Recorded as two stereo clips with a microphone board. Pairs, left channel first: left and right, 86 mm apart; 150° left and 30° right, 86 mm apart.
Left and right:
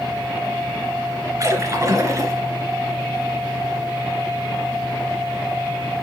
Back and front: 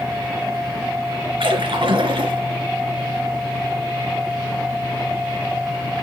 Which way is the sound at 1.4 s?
40° right.